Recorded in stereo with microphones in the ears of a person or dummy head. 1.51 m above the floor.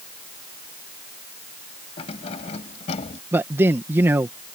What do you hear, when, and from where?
2.0 s keys jangling: 40° left (ahead or behind); by 3.2 s 45° left (ahead or behind)
3.3 s a man speaking: 10° right (ahead or behind)